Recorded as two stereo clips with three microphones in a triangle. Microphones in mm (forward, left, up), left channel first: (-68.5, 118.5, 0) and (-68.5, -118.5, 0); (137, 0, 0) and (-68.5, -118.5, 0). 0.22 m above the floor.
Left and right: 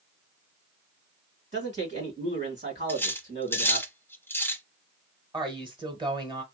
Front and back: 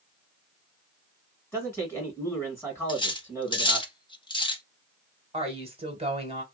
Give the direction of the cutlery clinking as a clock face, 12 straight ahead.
11 o'clock.